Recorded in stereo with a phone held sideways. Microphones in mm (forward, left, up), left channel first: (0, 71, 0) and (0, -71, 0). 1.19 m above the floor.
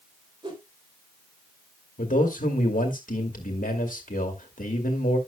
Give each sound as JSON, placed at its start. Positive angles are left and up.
{"t": 0.4, "sound": "a whoosh", "side_deg": -35, "distance_m": 3.5}
{"t": 2.0, "sound": "a man speaking", "side_deg": 75, "distance_m": 2.0}